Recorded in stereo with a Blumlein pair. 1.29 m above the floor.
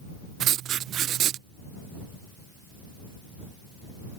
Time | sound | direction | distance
0.4 | writing | 30° right | ?